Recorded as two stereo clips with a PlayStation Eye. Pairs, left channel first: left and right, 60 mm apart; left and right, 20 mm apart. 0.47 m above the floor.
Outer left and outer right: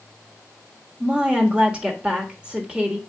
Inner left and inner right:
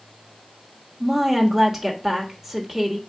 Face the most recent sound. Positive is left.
turn(degrees=-15)  # may be behind; listen again after turning